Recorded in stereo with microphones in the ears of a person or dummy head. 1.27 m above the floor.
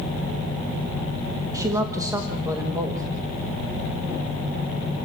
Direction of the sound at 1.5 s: 20° right (ahead or behind).